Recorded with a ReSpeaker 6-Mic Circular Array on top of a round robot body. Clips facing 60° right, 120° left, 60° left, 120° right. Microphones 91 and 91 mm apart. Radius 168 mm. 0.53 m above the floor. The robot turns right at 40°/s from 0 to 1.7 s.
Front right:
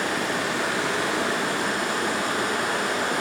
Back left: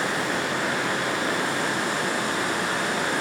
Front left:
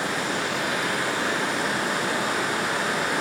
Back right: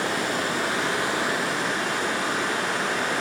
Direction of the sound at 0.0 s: 90° right.